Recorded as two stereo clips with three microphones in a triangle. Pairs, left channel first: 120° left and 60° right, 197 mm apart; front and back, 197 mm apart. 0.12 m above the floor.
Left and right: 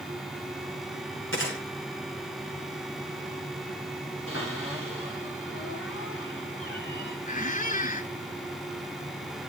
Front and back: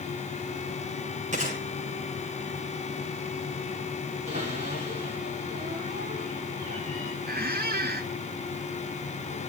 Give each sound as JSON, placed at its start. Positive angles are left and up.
{"t": 1.3, "sound": "a gunshot", "azimuth_deg": 130, "distance_m": 9.0}
{"t": 4.3, "sound": "a cupboard door", "azimuth_deg": 125, "distance_m": 10.0}
{"t": 7.3, "sound": "a squeak", "azimuth_deg": 160, "distance_m": 0.7}